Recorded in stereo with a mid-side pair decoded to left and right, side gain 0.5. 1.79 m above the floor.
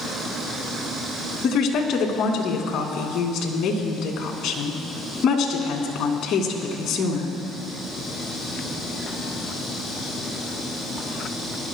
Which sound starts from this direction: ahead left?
A woman speaking, at 1.4 s.